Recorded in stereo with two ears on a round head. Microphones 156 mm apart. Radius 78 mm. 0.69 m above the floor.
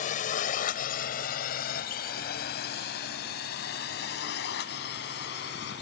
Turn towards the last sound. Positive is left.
turn(degrees=65)  # may be behind; listen again after turning